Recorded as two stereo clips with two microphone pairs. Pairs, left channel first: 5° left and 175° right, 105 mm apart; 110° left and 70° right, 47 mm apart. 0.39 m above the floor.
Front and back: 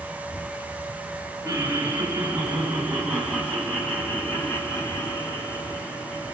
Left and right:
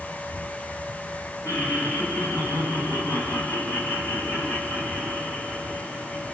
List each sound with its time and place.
1.4 s laughter: 115° left, 3.5 m; by 6.3 s 40° left, 3 m